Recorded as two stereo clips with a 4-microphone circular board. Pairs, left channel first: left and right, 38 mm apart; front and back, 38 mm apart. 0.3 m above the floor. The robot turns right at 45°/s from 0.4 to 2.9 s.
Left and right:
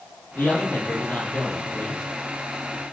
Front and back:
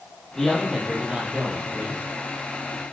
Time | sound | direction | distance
0.3 | a man speaking | 80° left | 6.5 m